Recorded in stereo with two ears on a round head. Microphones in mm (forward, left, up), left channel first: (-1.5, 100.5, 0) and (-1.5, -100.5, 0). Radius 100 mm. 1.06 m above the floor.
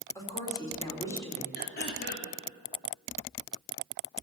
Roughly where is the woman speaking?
Centre.